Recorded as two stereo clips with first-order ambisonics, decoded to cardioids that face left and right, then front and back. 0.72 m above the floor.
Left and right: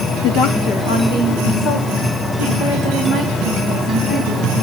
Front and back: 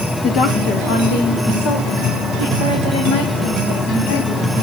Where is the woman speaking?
55° left, 1.1 m; by 4.5 s 15° left, 5.5 m.